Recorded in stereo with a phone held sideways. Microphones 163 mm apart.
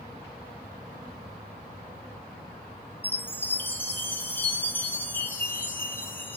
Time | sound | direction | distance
3.0 | a chime | 10° left (ahead or behind) | 0.9 m